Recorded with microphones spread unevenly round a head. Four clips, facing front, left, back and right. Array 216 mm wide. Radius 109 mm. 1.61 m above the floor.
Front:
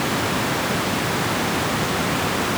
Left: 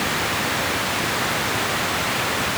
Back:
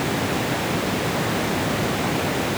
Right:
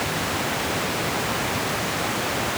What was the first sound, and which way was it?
Only background noise.